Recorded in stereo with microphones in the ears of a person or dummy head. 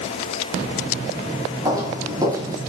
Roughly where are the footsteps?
Right.